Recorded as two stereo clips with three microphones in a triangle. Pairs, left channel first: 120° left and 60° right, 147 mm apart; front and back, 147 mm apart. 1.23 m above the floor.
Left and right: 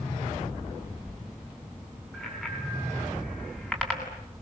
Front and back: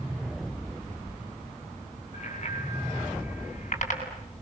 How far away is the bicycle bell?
About 9 m.